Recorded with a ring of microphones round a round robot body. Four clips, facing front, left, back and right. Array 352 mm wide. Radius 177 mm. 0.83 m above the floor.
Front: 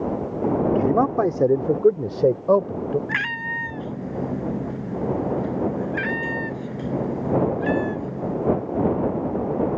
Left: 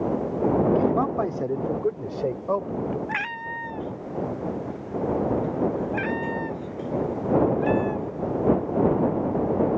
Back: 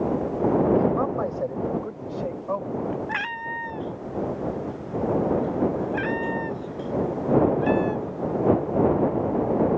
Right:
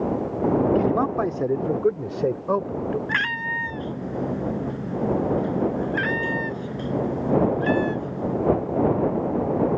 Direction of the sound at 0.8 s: 10° right.